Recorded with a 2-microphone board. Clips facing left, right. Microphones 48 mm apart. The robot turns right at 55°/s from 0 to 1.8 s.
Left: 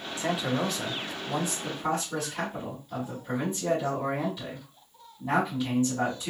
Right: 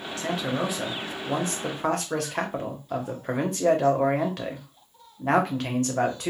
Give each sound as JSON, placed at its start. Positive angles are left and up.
{"t": 0.2, "sound": "a man speaking", "azimuth_deg": 160, "distance_m": 1.6}